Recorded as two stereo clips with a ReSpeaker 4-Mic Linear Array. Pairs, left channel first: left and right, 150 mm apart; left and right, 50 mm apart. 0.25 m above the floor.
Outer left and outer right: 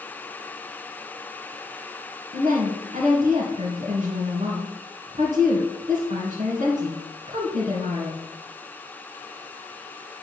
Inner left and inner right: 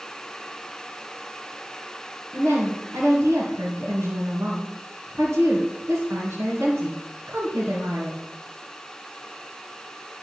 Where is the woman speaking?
50° right (ahead or behind), 3 m.